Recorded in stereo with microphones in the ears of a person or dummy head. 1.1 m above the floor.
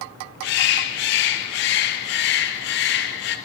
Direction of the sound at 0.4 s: 60° left (ahead or behind).